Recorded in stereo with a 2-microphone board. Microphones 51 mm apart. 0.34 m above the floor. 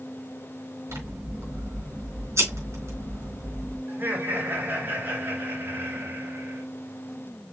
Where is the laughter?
45° right (ahead or behind), 4.5 m.